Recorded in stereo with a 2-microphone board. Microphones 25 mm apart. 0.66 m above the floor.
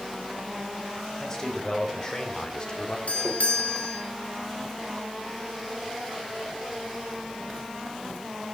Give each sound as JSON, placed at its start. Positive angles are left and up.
{"t": 1.2, "sound": "a man speaking", "side_deg": 25, "distance_m": 3.5}
{"t": 3.1, "sound": "a doorbell", "side_deg": 65, "distance_m": 2.0}